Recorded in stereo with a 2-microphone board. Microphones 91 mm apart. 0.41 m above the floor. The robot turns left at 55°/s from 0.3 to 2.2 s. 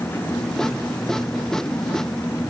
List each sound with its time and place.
Only background noise.